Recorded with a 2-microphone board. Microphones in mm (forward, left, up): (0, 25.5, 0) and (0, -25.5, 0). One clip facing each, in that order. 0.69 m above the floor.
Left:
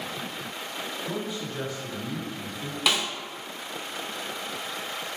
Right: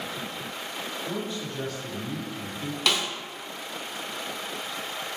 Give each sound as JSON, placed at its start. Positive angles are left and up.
{"t": 1.1, "sound": "a man speaking", "side_deg": 15, "distance_m": 1.2}
{"t": 2.9, "sound": "a snare drum", "side_deg": 10, "distance_m": 0.5}